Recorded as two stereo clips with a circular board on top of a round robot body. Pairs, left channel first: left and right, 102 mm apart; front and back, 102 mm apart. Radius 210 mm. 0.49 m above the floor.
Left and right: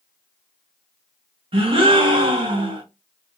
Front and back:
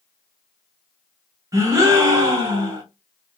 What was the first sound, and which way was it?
A gasp, 120° right.